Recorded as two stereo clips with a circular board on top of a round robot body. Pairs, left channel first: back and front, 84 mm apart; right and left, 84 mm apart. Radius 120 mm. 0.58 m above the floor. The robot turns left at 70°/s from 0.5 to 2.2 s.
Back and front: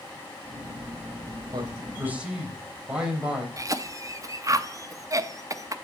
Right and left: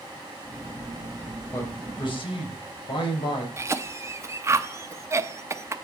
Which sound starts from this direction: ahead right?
A man speaking, at 1.5 s.